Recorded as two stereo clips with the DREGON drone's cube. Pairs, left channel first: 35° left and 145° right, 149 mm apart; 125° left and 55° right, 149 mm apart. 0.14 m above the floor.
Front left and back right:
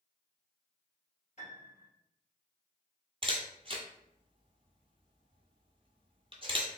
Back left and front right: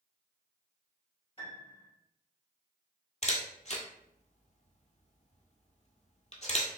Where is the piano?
75° left, 1.7 m.